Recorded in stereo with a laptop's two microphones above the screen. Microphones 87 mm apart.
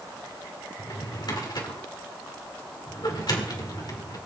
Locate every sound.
0.8 s a drawer: 55° left (ahead or behind), 1.8 m